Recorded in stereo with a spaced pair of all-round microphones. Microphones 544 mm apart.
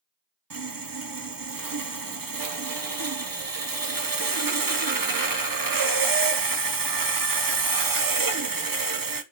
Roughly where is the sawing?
Right.